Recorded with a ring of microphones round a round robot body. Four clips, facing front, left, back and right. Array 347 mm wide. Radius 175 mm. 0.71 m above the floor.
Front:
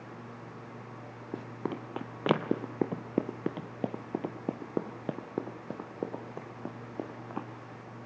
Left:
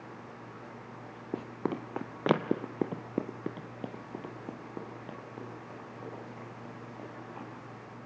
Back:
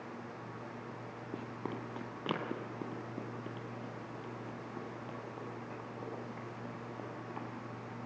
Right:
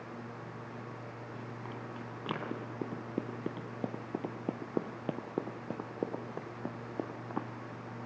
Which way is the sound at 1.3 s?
70° left.